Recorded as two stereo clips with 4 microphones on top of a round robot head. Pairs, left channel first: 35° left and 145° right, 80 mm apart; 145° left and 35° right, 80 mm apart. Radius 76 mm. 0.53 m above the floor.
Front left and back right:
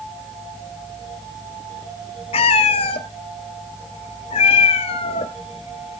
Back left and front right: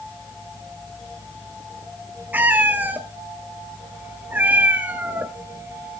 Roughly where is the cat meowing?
Ahead left.